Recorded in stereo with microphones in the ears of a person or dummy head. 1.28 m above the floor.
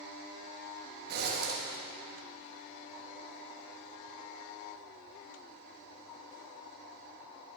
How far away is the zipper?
About 2.5 m.